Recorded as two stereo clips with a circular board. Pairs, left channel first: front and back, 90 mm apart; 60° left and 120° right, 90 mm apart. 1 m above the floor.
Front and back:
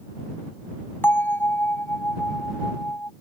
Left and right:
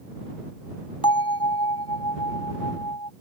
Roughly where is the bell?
Ahead left.